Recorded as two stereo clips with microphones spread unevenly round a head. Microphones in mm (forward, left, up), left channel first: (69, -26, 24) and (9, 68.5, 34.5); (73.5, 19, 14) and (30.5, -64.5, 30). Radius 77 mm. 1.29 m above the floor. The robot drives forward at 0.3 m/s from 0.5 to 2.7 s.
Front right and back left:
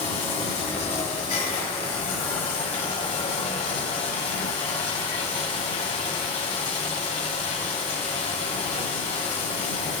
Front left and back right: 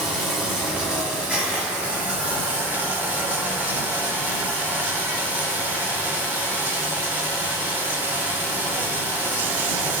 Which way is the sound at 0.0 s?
40° right.